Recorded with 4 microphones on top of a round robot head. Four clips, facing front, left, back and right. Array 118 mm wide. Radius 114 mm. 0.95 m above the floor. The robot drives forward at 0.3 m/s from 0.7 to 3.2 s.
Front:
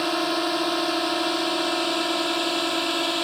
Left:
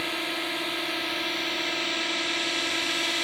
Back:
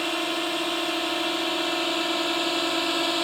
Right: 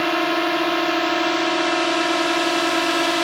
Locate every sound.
0.0 s a drone: 75° right; by 3.2 s 90° right